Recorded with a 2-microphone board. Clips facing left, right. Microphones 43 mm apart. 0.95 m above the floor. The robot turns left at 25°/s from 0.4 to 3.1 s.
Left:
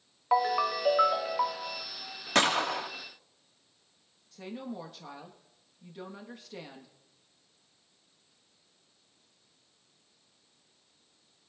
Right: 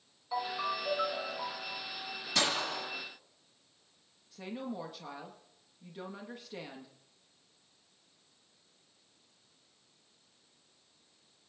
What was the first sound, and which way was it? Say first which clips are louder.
A ringtone: left 8 dB; 85° left.